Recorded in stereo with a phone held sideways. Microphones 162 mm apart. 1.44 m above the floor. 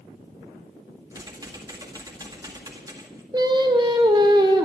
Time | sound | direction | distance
1.1 | typing on a keyboard | 25° right (ahead or behind) | 1.9 m
3.3 | singing | 25° right (ahead or behind) | 1.7 m